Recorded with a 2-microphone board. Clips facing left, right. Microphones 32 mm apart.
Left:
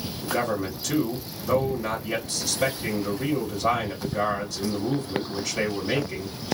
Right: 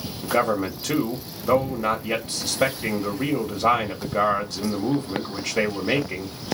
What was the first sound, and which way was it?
A man speaking, 50° right (ahead or behind).